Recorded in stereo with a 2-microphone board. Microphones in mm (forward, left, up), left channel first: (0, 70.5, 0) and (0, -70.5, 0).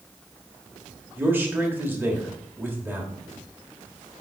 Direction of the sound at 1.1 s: 15° right (ahead or behind).